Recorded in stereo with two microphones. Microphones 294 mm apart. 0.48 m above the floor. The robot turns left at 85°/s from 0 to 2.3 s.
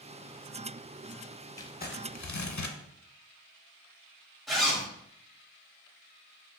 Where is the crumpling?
170° left, 0.7 m; by 2.8 s 105° left, 0.7 m.